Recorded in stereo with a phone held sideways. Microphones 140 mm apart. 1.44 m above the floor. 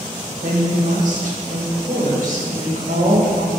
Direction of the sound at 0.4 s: 70° right (ahead or behind).